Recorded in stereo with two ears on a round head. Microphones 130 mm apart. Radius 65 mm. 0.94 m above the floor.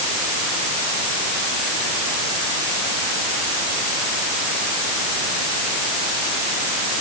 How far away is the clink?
No clink in this recording.